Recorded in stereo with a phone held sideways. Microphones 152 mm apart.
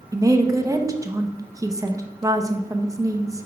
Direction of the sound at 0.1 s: 20° right (ahead or behind).